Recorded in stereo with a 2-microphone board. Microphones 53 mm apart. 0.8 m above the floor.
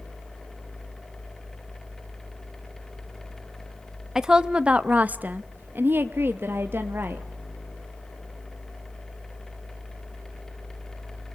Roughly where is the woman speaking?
Centre.